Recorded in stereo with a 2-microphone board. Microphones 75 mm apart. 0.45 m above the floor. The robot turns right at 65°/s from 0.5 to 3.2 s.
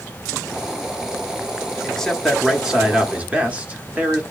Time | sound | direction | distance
1.8 | a man speaking | 10° left (ahead or behind) | 0.7 m